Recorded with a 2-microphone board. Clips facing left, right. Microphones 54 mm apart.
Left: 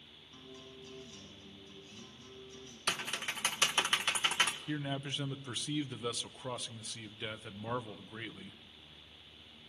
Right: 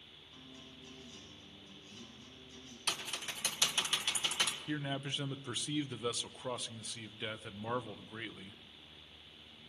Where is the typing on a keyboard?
45° left (ahead or behind), 1.7 m.